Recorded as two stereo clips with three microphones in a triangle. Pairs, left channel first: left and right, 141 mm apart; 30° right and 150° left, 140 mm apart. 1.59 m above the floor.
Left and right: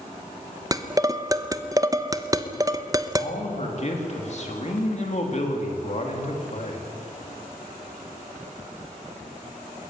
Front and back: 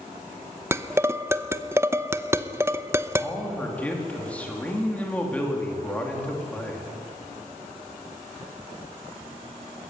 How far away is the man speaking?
About 4 m.